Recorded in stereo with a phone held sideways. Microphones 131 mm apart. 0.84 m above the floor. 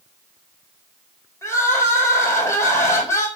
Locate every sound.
1.4 s crying: 25° left (ahead or behind), 4.5 m